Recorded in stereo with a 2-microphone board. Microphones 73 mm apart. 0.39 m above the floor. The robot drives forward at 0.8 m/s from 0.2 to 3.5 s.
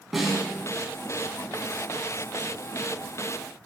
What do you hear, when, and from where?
0.1 s a snare drum: 5° right (ahead or behind), 2.5 m